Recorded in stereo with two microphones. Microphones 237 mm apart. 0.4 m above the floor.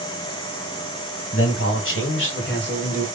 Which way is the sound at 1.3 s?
65° left (ahead or behind).